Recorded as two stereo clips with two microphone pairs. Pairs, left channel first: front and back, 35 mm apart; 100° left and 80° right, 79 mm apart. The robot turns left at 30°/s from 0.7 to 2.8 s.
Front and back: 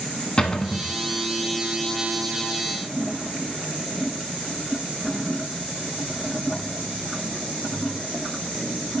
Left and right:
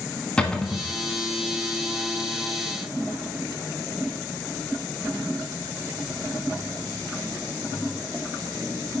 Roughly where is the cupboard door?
Ahead left.